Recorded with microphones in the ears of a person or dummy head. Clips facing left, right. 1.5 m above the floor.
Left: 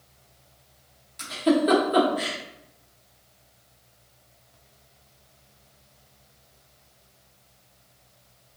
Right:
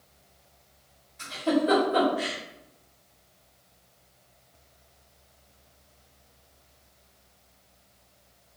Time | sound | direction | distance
1.2 | a giggle | 50° left (ahead or behind) | 1.0 m